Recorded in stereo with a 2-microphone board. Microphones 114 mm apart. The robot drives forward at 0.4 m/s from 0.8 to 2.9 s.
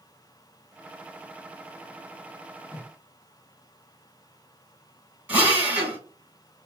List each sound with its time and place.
2.7 s a whoosh: 15° left (ahead or behind), 0.7 m
5.3 s a drill: 10° right (ahead or behind), 1.7 m